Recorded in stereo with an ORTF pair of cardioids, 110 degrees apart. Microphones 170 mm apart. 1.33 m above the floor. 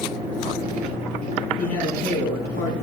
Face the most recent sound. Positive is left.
turn(degrees=65)